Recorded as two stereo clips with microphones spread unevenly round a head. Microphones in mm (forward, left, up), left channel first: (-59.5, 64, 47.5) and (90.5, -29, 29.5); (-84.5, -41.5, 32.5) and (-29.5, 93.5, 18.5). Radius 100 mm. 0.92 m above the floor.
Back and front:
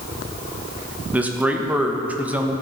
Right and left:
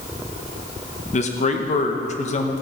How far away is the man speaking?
About 1.1 m.